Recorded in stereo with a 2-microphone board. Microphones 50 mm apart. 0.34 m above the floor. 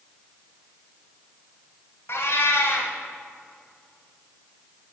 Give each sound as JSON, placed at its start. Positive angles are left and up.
{"t": 2.1, "sound": "a cat meowing", "side_deg": 60, "distance_m": 1.0}